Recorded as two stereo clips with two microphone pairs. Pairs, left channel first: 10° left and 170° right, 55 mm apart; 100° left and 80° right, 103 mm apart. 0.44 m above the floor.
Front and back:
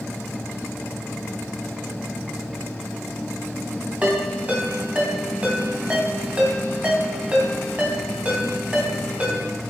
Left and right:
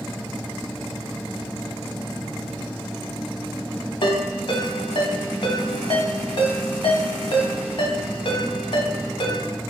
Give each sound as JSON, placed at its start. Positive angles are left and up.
{"t": 4.0, "sound": "a ringtone", "azimuth_deg": 125, "distance_m": 1.9}